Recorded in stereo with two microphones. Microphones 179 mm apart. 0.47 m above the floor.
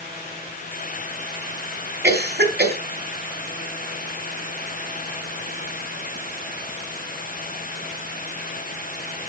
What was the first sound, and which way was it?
A cough, 70° right (ahead or behind).